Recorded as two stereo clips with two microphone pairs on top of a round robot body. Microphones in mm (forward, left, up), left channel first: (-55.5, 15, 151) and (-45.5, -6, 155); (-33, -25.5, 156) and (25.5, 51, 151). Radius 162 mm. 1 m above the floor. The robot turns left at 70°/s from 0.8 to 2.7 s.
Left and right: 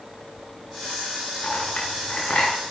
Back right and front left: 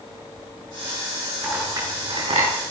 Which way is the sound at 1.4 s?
135° left.